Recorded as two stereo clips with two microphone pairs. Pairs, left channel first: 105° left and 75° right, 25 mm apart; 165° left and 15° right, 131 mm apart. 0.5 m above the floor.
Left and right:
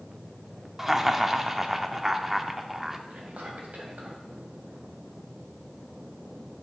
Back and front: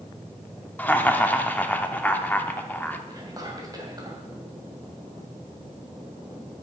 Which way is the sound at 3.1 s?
75° right.